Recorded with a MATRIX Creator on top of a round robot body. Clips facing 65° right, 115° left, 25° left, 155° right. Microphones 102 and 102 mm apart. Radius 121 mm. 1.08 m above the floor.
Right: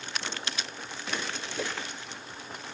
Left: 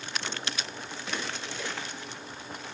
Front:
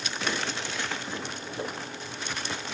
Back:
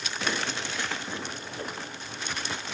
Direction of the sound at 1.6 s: 50° right.